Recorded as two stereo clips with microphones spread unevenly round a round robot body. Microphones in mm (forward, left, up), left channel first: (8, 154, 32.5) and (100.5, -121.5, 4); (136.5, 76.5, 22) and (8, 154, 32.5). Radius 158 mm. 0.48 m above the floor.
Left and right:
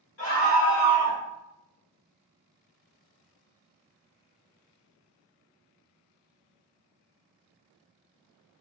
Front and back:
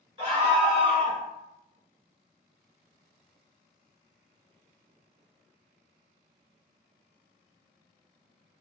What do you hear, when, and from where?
0.2 s a scream: 130° left, 1.6 m; by 1.2 s 165° right, 1.6 m